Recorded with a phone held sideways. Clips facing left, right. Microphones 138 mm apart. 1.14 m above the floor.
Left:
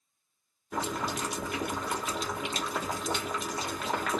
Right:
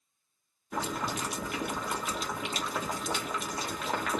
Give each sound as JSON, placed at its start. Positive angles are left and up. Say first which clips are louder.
{"t": 0.7, "sound": "boiling", "louder": "left 1 dB", "side_deg": 0, "distance_m": 1.3}